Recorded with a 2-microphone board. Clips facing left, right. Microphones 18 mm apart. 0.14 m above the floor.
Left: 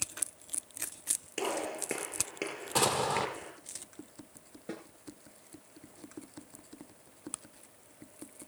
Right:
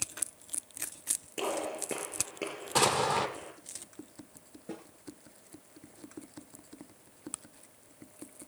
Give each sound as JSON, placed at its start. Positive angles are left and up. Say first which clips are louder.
{"t": 1.4, "sound": "a gunshot", "louder": "right 1 dB", "side_deg": 30, "distance_m": 9.0}
{"t": 2.8, "sound": "an explosion", "louder": "right 2 dB", "side_deg": -10, "distance_m": 2.5}
{"t": 4.7, "sound": "a snare drum", "louder": "left 1 dB", "side_deg": 30, "distance_m": 8.5}